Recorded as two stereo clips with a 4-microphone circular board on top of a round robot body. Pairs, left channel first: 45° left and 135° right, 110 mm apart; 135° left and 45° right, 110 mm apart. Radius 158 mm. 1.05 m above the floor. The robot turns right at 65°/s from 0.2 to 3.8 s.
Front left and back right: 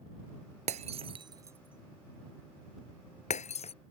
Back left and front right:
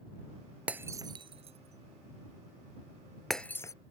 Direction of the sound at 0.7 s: 125° right.